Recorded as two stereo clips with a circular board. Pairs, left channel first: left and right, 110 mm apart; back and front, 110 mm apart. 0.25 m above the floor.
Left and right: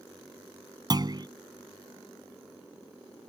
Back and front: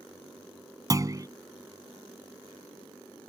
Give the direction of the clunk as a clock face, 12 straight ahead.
2 o'clock.